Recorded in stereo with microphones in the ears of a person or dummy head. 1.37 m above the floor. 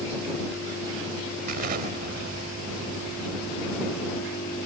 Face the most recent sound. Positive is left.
turn(degrees=-50)  # may be behind; listen again after turning